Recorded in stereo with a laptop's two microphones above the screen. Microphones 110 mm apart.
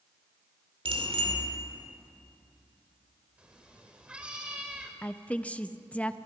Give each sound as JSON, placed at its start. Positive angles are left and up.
{"t": 0.8, "sound": "a bicycle bell", "side_deg": -60, "distance_m": 2.0}
{"t": 3.4, "sound": "a cat meowing", "side_deg": -10, "distance_m": 2.0}
{"t": 5.0, "sound": "a woman speaking", "side_deg": 10, "distance_m": 0.7}